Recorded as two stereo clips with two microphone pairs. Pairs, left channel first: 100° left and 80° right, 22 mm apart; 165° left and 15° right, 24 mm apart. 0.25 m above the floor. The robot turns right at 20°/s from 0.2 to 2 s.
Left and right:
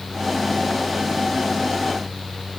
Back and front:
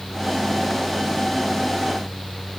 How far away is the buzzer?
I don't hear a buzzer.